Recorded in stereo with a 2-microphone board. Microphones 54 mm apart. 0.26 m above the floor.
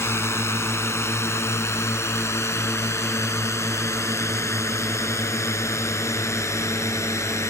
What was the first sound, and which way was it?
A drone, 55° left (ahead or behind).